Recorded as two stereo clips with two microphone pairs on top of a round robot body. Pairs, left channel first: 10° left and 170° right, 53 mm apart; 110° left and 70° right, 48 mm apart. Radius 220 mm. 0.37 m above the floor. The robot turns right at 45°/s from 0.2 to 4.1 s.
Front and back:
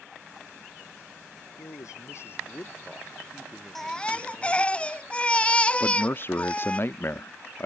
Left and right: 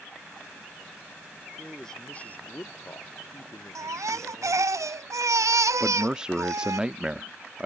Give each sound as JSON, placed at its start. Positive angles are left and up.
{"t": 1.6, "sound": "a man speaking", "azimuth_deg": 20}
{"t": 3.8, "sound": "a baby crying", "azimuth_deg": -80}
{"t": 5.8, "sound": "a man speaking", "azimuth_deg": -5}